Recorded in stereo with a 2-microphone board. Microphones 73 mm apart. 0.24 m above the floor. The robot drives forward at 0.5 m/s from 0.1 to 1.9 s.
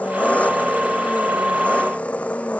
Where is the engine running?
20° left (ahead or behind).